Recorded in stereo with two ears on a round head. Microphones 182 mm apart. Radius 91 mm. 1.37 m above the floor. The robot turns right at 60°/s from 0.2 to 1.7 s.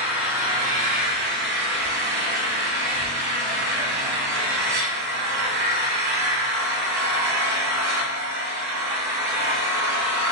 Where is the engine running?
170° right, 1.5 m; by 10.3 s 80° right, 1.5 m.